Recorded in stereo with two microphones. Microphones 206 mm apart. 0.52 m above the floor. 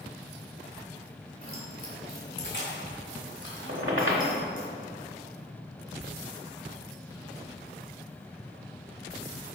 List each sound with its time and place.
1.4 s keys jangling: 45° left (ahead or behind), 2 m; by 4.7 s 75° left (ahead or behind), 3 m
3.7 s a squeak: 85° right, 1.1 m